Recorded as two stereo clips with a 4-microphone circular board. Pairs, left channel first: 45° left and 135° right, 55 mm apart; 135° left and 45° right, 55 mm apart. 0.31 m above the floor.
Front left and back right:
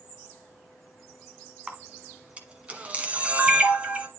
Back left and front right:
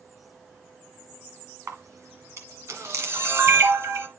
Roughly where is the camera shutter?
Right.